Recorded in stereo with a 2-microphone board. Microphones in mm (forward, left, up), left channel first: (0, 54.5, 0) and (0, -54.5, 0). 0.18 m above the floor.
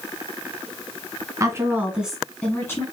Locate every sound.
1.4 s a woman speaking: 30° right (ahead or behind), 1.6 m; by 2.8 s 25° left (ahead or behind), 1.6 m